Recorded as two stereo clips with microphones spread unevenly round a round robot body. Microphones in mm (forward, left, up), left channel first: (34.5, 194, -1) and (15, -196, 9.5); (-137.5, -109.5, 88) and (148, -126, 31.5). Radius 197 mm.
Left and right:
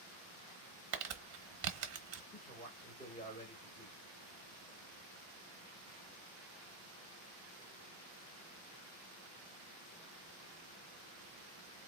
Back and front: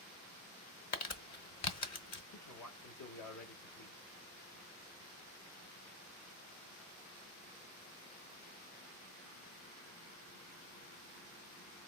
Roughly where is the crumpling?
Behind right.